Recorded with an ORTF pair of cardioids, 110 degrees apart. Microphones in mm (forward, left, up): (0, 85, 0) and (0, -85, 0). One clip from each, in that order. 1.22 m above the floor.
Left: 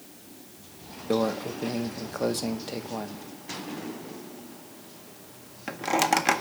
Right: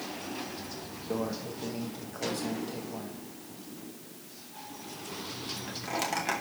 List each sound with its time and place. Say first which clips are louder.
1.1 s a microwave: left 8 dB; 50° left, 0.8 m